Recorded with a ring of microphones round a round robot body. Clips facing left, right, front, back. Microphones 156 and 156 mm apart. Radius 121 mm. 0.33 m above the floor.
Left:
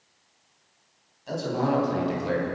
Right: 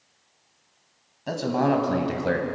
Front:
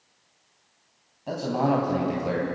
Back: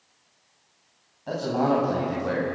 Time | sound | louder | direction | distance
1.3 | a man speaking | right 3 dB, back 1 dB | 80° right | 3.5 m